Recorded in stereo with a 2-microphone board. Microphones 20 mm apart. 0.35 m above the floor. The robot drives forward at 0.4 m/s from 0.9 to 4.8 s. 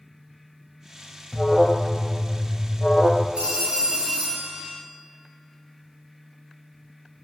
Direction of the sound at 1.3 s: 5° left (ahead or behind).